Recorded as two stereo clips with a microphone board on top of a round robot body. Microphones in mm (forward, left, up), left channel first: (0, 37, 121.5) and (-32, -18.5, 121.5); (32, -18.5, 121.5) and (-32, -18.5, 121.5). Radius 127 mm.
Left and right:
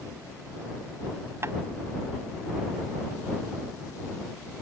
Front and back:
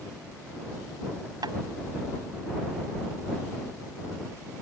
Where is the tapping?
170° right.